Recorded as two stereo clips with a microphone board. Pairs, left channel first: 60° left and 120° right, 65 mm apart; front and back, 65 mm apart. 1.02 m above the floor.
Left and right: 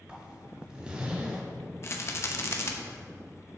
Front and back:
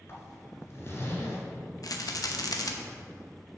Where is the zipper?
45° right, 2 m.